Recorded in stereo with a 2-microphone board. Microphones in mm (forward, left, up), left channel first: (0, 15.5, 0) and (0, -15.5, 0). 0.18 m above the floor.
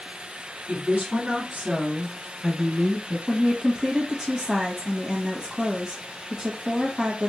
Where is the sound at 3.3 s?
15° right (ahead or behind), 1.0 m.